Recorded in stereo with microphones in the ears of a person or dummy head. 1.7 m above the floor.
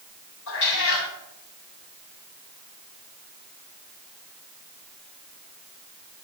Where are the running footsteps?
No running footsteps in this recording.